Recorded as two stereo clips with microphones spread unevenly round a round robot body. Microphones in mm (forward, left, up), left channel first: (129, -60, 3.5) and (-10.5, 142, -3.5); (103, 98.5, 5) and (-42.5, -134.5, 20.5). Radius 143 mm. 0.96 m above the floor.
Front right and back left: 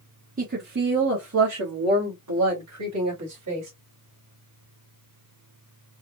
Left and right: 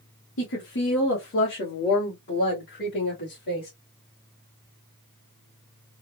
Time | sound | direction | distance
0.4 | a woman speaking | 80° left | 0.9 m